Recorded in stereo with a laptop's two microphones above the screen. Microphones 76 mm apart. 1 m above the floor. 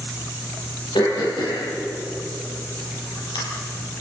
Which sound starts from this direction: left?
Throat clearing, at 0.9 s.